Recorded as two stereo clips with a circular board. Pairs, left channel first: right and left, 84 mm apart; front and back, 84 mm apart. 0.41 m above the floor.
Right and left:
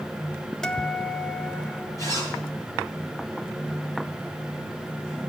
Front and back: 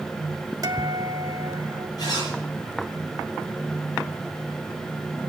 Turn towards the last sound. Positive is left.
turn(degrees=-40)